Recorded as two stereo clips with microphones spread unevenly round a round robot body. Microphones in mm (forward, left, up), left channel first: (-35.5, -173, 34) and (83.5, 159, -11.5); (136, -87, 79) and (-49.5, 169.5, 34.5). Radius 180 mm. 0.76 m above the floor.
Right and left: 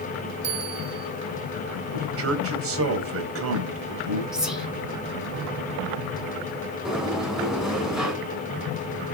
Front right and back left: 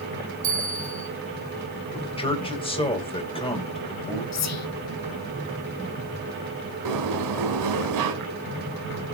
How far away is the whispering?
About 2 m.